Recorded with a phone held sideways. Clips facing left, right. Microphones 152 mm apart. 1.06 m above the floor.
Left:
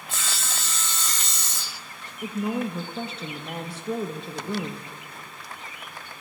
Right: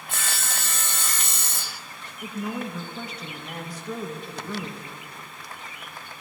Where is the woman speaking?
30° left (ahead or behind), 0.6 m.